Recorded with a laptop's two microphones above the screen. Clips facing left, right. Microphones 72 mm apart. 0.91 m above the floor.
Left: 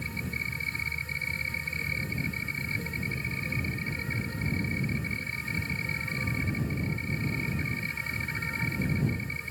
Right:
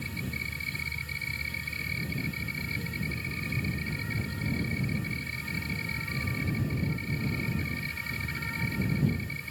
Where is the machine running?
25° left (ahead or behind).